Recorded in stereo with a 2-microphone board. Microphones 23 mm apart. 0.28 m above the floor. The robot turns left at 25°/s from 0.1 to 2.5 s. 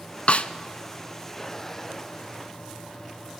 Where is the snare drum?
65° left (ahead or behind), 0.6 m; by 0.5 s 70° left (ahead or behind), 0.6 m.